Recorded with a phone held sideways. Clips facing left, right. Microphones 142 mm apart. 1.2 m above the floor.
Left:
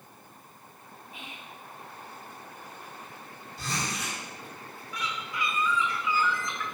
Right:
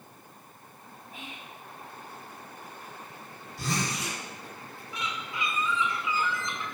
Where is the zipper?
75° right (ahead or behind), 2.5 m.